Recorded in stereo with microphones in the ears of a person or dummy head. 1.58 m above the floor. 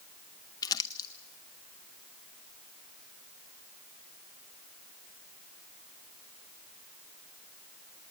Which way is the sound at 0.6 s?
20° left (ahead or behind).